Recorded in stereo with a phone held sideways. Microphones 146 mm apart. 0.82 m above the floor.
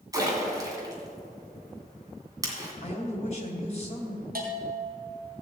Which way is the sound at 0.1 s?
25° right (ahead or behind).